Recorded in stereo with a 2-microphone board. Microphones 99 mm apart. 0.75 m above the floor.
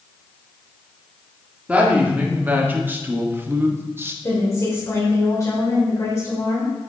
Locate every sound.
1.7 s a woman speaking: 15° right (ahead or behind), 1.7 m; by 4.1 s 25° right (ahead or behind), 0.8 m
4.2 s a woman speaking: 35° left (ahead or behind), 3 m